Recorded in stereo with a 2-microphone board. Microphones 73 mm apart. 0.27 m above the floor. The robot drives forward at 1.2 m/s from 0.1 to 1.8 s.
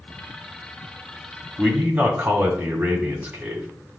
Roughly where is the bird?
I don't hear a bird.